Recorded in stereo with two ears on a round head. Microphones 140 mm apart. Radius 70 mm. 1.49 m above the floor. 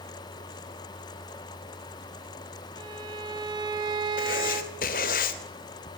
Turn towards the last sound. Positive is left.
turn(degrees=60)  # may be behind; listen again after turning